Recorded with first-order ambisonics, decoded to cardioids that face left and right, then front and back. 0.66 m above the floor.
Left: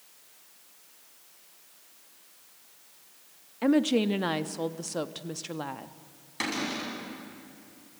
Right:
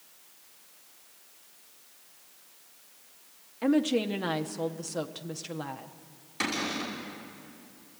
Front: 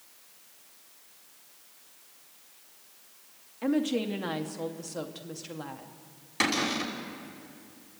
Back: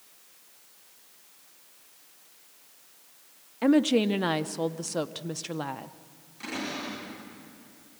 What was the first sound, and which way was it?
A woman speaking, 160° left.